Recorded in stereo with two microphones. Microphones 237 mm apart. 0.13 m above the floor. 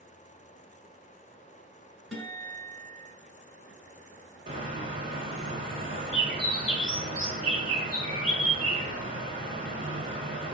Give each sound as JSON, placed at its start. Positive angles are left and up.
{"t": 2.1, "sound": "a guitar", "side_deg": 0, "distance_m": 1.4}
{"t": 4.5, "sound": "a bird", "side_deg": -35, "distance_m": 0.6}